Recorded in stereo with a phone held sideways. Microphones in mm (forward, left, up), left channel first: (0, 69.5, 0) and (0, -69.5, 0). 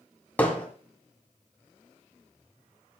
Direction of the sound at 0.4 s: 10° left (ahead or behind).